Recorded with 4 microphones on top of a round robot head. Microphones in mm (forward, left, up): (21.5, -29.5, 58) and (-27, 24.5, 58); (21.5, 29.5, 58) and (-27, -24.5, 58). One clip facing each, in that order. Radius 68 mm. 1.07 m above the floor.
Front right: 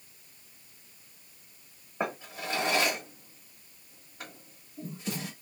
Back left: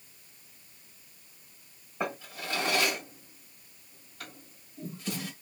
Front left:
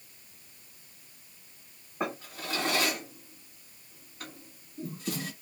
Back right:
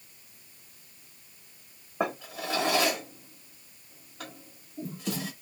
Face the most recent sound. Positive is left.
turn(degrees=-110)